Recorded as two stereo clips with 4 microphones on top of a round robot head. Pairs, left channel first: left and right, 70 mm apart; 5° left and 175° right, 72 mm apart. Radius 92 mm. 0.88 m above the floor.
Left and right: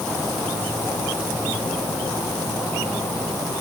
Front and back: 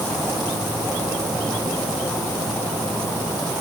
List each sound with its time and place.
Only background noise.